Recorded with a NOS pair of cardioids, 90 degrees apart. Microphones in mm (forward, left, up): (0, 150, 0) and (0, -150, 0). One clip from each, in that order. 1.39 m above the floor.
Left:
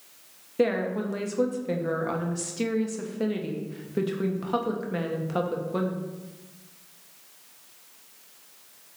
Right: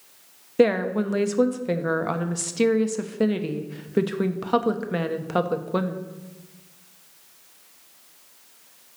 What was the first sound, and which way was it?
A woman speaking, 35° right.